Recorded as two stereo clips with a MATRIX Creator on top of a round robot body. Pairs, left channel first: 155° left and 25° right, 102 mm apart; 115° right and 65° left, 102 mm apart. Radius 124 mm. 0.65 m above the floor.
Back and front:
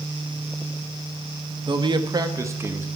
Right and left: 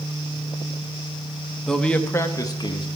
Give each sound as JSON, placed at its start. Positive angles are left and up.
{"t": 1.7, "sound": "a man speaking", "azimuth_deg": -25, "distance_m": 1.3}